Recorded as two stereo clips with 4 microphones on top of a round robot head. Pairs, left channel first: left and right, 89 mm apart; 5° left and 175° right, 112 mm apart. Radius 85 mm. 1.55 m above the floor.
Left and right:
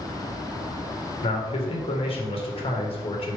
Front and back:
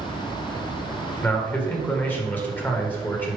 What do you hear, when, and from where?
1.2 s a man speaking: 80° left, 2 m